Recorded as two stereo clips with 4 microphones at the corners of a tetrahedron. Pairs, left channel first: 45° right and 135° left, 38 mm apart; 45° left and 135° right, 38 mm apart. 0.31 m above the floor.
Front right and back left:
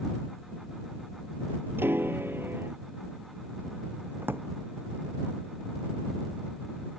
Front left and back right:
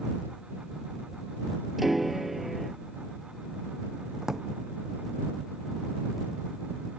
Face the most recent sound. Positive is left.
turn(degrees=150)